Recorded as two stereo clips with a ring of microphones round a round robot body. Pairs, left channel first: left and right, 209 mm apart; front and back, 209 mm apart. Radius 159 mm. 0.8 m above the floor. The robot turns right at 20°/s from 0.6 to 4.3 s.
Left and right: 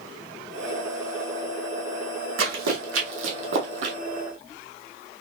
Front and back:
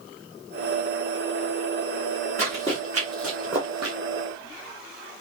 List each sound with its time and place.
2.4 s running footsteps: 80° right, 2 m; by 4.0 s 115° right, 1.2 m